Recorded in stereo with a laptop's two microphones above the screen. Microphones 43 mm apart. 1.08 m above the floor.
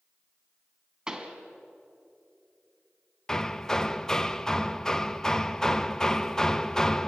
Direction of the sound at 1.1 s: 15° right (ahead or behind).